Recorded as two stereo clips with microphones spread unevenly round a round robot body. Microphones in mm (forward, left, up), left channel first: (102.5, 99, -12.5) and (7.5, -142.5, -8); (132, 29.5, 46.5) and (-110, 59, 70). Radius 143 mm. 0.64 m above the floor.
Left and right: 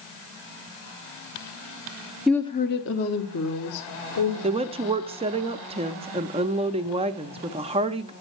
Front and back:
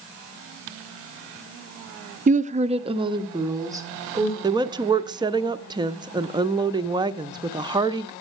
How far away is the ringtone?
No ringtone in this recording.